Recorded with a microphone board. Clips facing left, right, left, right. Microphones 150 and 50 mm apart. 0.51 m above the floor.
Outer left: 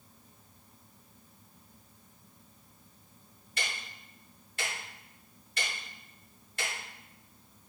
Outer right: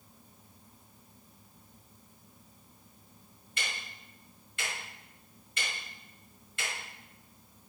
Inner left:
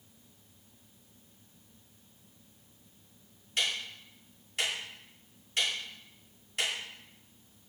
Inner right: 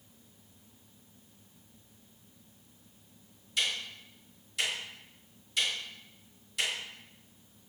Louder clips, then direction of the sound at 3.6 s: Outer left 1 dB, even; 35° left (ahead or behind).